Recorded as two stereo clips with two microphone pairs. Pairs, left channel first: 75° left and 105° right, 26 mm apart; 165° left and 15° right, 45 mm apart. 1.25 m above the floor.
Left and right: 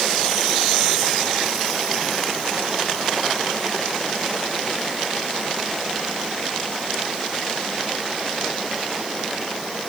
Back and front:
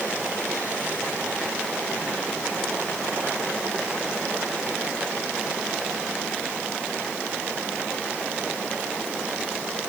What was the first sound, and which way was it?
Only background noise.